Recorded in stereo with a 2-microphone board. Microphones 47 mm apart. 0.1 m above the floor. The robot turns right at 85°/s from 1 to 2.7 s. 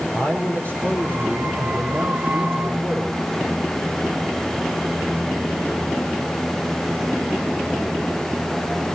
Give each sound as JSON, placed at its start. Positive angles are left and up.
{"t": 0.1, "sound": "a man speaking", "azimuth_deg": 140, "distance_m": 5.0}